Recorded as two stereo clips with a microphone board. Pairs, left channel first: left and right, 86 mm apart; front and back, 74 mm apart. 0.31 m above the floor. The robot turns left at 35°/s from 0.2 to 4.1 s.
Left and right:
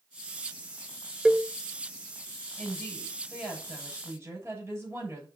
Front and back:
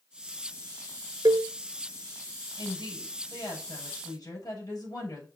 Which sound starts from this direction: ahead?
A woman speaking, at 2.6 s.